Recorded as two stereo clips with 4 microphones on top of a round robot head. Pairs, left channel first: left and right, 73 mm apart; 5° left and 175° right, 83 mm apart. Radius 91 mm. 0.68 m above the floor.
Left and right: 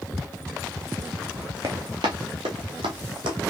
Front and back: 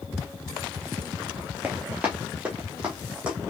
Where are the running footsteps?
105° right, 0.7 m; by 3.4 s 95° right, 1.7 m.